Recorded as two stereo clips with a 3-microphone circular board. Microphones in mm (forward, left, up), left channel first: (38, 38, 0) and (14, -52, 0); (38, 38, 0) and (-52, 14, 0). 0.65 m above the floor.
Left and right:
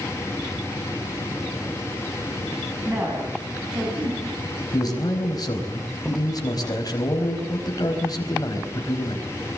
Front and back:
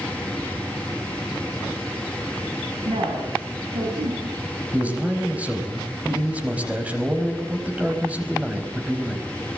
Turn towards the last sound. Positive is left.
turn(degrees=120)